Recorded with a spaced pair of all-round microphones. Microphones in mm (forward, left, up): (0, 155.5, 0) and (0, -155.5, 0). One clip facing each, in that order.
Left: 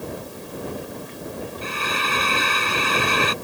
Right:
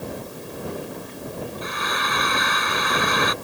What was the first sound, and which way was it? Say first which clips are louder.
Frying: left 1 dB; 35° left (ahead or behind).